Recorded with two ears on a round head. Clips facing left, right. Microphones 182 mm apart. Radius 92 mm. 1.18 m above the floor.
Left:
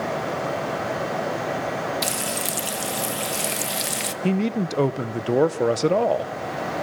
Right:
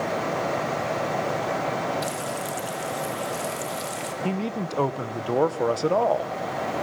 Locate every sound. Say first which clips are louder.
2.0 s frying: left 1 dB; 70° left (ahead or behind), 1.6 m
4.2 s a man speaking: left 6 dB; 20° left (ahead or behind), 0.9 m